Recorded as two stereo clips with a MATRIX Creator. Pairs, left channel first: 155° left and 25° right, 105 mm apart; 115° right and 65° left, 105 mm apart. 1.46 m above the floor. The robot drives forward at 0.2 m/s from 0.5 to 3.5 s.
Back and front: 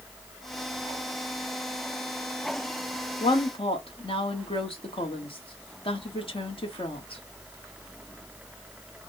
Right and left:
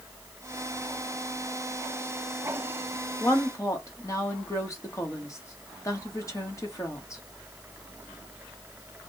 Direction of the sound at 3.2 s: 170° right.